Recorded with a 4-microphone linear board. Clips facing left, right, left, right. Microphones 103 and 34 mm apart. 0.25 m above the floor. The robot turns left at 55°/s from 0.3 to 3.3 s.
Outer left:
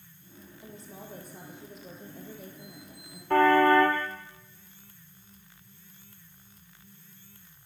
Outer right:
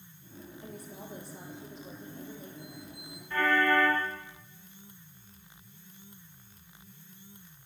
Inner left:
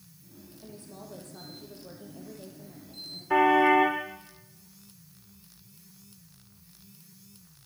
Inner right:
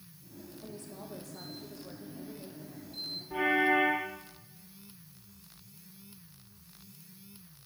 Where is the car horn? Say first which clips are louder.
Outer left 7 dB, inner left 7 dB; 70° left (ahead or behind), 6.5 m.